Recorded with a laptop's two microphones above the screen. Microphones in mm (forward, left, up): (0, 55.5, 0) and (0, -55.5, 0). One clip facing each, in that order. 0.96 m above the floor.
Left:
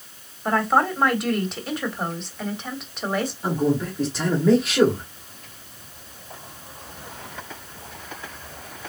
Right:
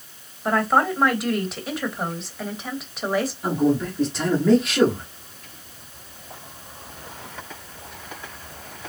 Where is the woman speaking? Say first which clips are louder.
Even; centre (ahead or behind), 1.6 m.